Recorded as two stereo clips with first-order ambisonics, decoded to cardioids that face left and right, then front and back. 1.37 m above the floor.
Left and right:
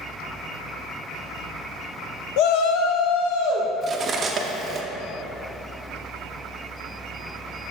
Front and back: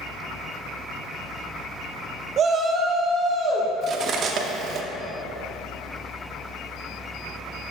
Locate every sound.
2.4 s a shout: 120° left, 0.6 m; by 3.7 s 100° left, 1.4 m
3.8 s cutlery clinking: 145° right, 0.6 m